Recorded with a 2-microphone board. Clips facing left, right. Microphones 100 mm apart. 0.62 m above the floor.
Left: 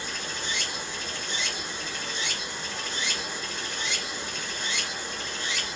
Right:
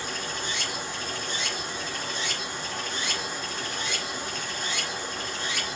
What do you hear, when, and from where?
0.0 s running water: 45° right (ahead or behind), 1.0 m